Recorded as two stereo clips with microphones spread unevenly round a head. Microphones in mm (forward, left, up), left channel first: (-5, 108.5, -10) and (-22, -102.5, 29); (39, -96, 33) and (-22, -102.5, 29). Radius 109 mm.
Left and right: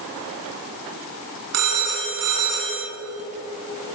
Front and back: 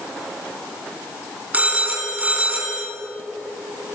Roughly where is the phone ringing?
Right.